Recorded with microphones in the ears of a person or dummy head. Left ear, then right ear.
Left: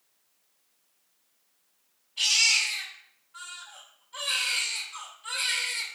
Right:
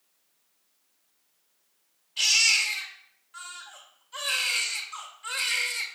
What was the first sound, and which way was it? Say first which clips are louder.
A baby crying: right 1 dB; 50° right (ahead or behind).